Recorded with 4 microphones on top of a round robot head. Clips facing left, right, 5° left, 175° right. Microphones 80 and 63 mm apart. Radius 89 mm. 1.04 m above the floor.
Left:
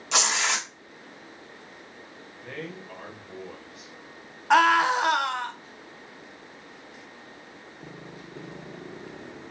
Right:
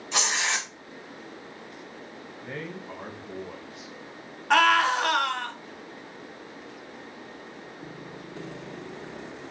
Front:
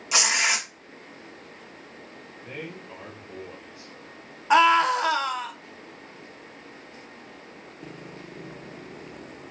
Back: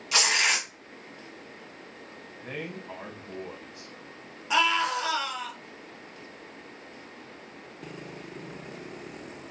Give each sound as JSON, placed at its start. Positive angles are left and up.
{"t": 0.1, "sound": "tearing paper", "azimuth_deg": 75, "distance_m": 0.9}
{"t": 2.4, "sound": "a man speaking", "azimuth_deg": -165, "distance_m": 1.3}
{"t": 4.5, "sound": "a scream", "azimuth_deg": 20, "distance_m": 1.0}